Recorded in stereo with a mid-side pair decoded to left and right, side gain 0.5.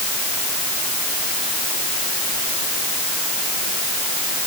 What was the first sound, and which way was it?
Only background noise.